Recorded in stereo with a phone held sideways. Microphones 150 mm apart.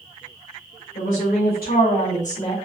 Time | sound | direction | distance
0.9 | a woman speaking | 80° left | 2 m